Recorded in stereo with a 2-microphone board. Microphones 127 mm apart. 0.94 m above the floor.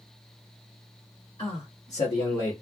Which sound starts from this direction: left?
A man speaking, at 1.4 s.